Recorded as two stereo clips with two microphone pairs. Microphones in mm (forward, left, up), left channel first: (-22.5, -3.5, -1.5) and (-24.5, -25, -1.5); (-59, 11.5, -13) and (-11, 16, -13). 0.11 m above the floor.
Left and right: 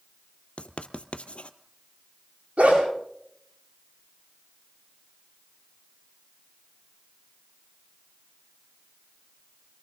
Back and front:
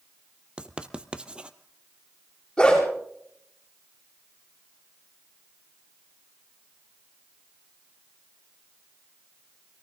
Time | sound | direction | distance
0.6 | writing | 80° left | 1.0 m
2.6 | a dog barking | 95° right | 9.5 m